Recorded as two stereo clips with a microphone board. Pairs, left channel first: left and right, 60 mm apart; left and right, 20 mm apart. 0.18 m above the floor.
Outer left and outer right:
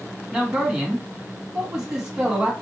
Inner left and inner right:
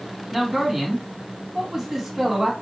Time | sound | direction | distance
0.3 | a man speaking | 10° right (ahead or behind) | 1.7 m